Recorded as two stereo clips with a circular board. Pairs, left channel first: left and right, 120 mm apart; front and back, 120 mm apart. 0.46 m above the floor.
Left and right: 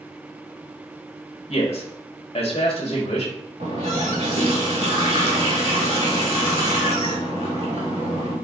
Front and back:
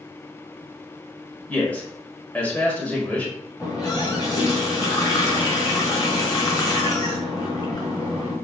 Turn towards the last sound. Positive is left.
turn(degrees=-60)